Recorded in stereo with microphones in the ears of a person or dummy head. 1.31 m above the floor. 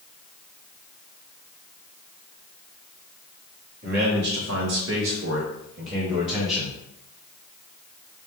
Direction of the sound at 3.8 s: 50° right (ahead or behind).